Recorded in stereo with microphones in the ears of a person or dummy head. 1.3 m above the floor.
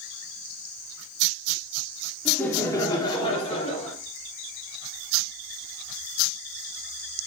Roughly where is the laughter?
Centre.